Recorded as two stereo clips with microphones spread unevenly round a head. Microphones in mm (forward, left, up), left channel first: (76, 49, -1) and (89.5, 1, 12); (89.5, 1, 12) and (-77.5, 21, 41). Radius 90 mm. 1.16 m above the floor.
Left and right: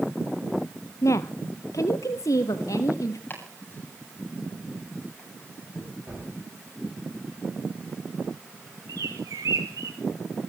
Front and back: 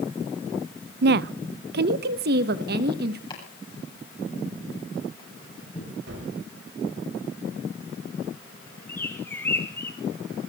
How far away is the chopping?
About 9 m.